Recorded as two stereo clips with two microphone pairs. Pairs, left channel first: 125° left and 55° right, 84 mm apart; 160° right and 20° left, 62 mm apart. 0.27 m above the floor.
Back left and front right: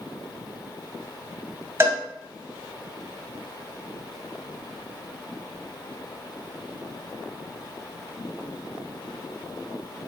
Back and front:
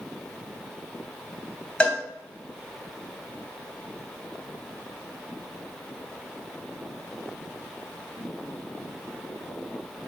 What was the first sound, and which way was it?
A cowbell, 100° right.